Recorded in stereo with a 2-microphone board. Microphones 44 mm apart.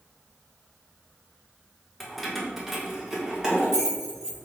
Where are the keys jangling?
5° left (ahead or behind), 0.8 m; by 4.4 s 15° right (ahead or behind), 1.7 m.